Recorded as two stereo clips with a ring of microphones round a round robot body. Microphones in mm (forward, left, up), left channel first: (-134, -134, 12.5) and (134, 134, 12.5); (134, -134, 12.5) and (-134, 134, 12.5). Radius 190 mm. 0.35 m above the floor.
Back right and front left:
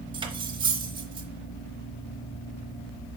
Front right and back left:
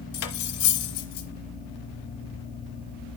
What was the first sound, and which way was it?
Cutlery clinking, 30° right.